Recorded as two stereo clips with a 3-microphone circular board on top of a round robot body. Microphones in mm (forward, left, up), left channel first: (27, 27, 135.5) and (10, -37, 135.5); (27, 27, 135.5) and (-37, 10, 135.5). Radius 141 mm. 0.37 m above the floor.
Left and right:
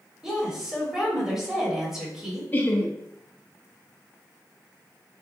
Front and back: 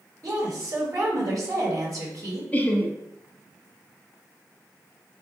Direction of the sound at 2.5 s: 55° left.